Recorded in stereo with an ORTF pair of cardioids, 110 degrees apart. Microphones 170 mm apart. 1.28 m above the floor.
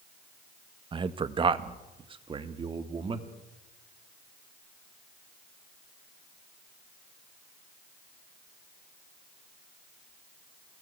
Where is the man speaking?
30° right, 1.5 m.